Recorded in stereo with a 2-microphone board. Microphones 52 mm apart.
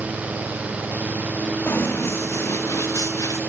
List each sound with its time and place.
1.7 s running footsteps: 40° left (ahead or behind), 3 m; by 3.4 s 75° left (ahead or behind), 2 m